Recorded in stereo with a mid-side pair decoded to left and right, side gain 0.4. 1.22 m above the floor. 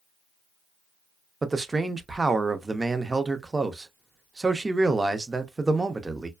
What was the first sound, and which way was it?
A man speaking, 25° right.